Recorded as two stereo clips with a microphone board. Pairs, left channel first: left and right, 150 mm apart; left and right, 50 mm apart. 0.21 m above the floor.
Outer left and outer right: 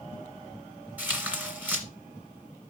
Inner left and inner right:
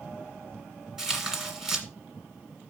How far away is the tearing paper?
About 2 m.